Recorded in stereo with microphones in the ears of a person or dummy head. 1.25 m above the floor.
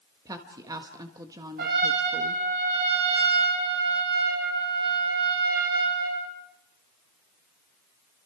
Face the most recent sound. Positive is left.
turn(degrees=-60)  # may be behind; listen again after turning